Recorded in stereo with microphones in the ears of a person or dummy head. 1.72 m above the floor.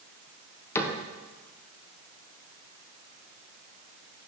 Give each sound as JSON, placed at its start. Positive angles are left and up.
{"t": 0.8, "sound": "a cupboard door", "side_deg": 10, "distance_m": 1.0}